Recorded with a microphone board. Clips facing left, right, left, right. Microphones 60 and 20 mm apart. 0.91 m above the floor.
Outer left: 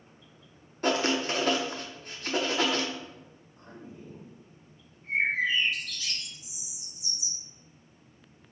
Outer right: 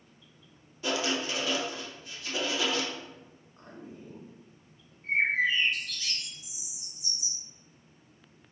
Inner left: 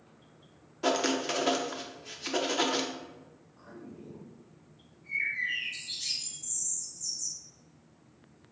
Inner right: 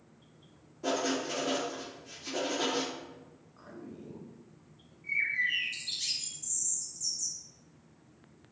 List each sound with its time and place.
0.8 s writing: 50° left (ahead or behind), 0.6 m
3.6 s a man speaking: 60° right (ahead or behind), 1.3 m
5.0 s a bird: 40° right (ahead or behind), 1.8 m